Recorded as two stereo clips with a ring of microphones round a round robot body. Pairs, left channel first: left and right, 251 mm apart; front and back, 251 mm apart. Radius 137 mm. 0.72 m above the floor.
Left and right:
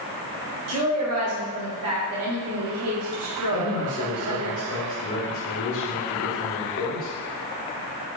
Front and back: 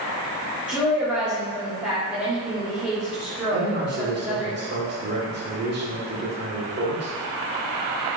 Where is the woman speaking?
95° right, 1.6 m.